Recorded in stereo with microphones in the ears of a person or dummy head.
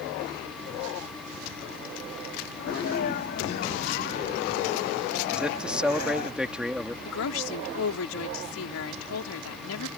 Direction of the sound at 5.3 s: Centre (ahead or behind).